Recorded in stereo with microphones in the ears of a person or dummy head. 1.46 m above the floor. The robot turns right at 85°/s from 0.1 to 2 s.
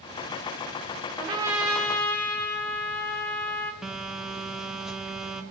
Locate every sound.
1.2 s a trumpet: 55° right, 1.1 m; by 3.7 s 15° left, 1.1 m
3.8 s a phone buzzing: 5° right (ahead or behind), 0.6 m